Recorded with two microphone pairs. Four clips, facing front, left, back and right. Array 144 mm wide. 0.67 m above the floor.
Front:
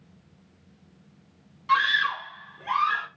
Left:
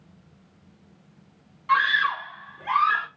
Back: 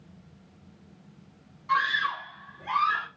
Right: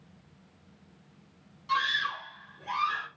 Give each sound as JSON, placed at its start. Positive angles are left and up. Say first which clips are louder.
{"t": 1.7, "sound": "a scream", "louder": "left 8 dB, front 3 dB", "azimuth_deg": 75, "distance_m": 0.9}